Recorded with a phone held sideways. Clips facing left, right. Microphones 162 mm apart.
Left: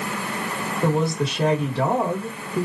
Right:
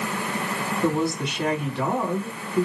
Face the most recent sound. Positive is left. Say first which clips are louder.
# left 2 dB
turn(degrees=35)  # may be behind; listen again after turning